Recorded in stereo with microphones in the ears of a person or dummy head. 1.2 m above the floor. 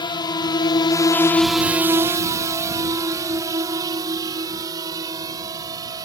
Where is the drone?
25° left (ahead or behind); by 6.0 s 25° right (ahead or behind).